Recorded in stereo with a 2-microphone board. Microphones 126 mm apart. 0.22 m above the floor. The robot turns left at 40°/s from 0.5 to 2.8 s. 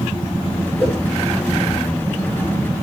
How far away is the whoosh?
About 7.5 m.